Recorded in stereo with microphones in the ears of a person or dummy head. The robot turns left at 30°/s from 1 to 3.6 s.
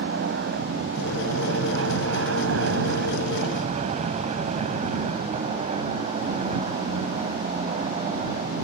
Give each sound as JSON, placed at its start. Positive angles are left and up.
{"t": 0.0, "sound": "an aircraft", "azimuth_deg": -60}